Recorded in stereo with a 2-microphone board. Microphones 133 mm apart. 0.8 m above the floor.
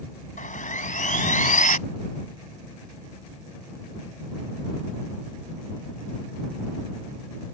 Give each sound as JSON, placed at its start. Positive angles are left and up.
{"t": 0.4, "sound": "sawing", "side_deg": 80}